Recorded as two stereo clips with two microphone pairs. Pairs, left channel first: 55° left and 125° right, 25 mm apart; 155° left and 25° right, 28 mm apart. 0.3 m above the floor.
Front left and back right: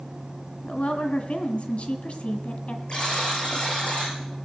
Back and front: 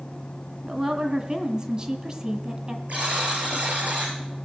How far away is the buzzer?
About 6.5 m.